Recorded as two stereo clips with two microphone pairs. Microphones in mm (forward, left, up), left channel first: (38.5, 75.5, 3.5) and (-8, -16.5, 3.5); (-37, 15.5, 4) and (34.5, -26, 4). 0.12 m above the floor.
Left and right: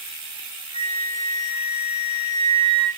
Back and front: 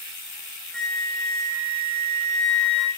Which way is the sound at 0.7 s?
70° left.